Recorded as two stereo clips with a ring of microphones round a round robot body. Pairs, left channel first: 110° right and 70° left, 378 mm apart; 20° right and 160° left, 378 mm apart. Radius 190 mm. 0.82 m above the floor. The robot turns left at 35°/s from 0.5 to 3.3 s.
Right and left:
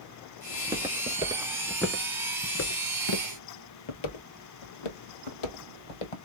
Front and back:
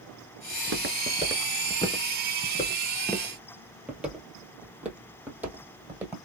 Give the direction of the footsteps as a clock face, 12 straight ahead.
7 o'clock.